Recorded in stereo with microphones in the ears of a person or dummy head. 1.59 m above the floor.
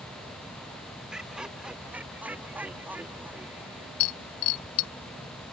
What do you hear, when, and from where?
1.1 s laughter: 5° right (ahead or behind); by 3.9 s 10° right (ahead or behind)
4.0 s breaking glass: 80° left